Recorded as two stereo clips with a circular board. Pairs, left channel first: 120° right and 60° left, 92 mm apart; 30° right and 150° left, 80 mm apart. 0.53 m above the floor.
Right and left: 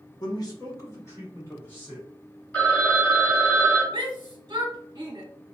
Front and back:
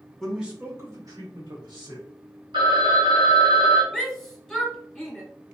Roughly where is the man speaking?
Right.